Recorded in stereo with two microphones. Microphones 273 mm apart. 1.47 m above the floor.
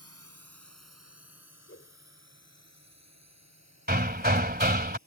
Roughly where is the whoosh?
Left.